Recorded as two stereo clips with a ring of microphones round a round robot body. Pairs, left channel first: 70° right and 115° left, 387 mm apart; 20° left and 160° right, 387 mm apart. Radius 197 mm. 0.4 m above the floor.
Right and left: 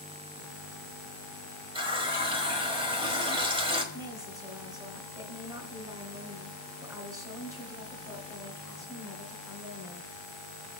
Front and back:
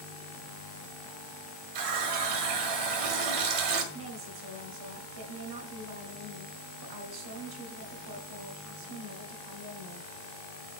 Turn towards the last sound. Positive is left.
turn(degrees=-165)